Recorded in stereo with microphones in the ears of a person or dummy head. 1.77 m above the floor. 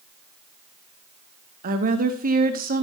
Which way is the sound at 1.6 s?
45° right (ahead or behind).